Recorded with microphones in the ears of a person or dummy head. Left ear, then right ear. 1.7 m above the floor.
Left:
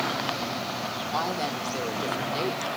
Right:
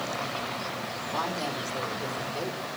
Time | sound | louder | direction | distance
1.1 | a woman speaking | left 2 dB | 45° left (ahead or behind) | 5 m